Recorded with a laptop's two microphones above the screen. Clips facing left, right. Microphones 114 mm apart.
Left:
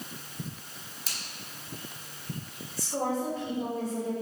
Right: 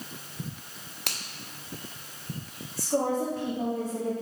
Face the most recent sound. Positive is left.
turn(degrees=-50)  # may be behind; listen again after turning